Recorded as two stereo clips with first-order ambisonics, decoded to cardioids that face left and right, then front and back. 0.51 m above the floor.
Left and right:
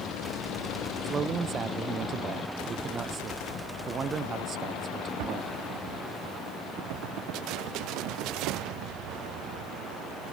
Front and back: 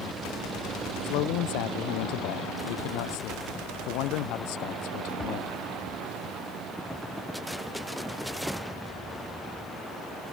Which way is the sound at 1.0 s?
25° right.